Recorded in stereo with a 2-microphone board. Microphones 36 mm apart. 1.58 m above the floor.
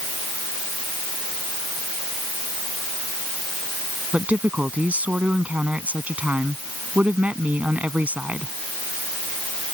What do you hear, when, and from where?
4.1 s a woman speaking: 50° right (ahead or behind)